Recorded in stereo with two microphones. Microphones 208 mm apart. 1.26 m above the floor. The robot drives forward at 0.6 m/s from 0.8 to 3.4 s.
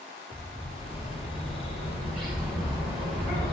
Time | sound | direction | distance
0.3 | a bird | centre (ahead or behind) | 2.5 m